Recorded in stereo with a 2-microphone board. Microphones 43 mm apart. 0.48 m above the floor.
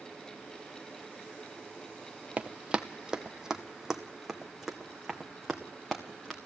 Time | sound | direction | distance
2.4 | running footsteps | 30° right (ahead or behind) | 0.8 m